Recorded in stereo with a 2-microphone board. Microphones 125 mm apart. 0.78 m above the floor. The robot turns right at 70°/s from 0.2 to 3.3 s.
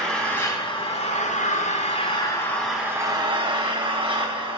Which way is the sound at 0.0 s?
5° left.